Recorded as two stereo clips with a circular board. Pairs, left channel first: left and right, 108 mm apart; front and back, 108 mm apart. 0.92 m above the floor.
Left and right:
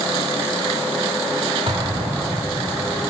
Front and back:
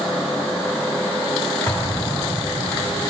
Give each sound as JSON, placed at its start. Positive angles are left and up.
{"t": 1.7, "sound": "an explosion", "azimuth_deg": -60, "distance_m": 1.6}